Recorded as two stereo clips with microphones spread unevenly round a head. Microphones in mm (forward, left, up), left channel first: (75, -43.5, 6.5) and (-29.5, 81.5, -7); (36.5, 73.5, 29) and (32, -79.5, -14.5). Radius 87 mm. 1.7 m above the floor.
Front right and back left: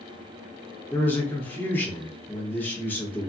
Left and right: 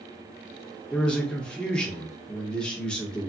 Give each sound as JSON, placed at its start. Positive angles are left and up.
{"t": 0.9, "sound": "a man speaking", "azimuth_deg": 20, "distance_m": 0.9}